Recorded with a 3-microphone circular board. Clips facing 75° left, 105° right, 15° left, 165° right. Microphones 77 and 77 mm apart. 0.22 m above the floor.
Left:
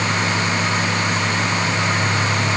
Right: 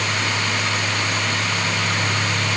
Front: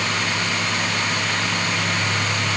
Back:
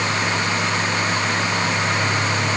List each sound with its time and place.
Only background noise.